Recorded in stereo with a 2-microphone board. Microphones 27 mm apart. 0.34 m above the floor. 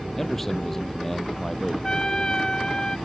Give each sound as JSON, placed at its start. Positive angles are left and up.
{"t": 0.2, "sound": "a man speaking", "side_deg": 10}
{"t": 1.8, "sound": "a trumpet", "side_deg": 25}